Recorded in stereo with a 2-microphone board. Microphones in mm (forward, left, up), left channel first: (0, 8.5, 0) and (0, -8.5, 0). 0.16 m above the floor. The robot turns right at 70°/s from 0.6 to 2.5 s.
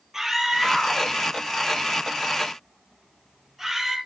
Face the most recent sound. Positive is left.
turn(degrees=-20)  # may be behind; listen again after turning